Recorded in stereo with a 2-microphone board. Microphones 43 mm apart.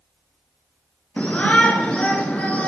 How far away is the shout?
About 1.4 m.